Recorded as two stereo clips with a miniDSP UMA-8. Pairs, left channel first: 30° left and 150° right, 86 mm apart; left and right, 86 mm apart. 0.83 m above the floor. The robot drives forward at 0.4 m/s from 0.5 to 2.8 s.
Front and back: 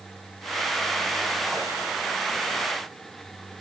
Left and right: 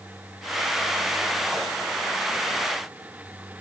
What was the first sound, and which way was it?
Only background noise.